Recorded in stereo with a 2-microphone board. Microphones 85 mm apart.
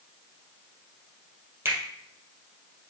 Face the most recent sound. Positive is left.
turn(degrees=-30)  # may be behind; listen again after turning